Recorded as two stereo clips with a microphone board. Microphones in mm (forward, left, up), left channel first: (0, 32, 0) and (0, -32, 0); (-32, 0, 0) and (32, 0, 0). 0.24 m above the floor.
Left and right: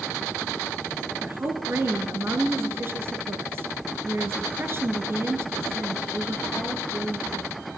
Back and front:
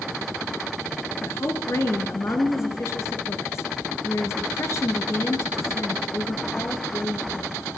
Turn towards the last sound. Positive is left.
turn(degrees=-140)